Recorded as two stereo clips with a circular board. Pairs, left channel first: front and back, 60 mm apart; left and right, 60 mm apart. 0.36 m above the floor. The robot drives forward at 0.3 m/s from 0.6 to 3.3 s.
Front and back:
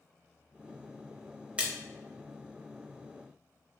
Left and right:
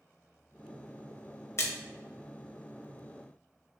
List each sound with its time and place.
1.6 s a splash: 115° left, 0.7 m; by 1.7 s 120° left, 0.7 m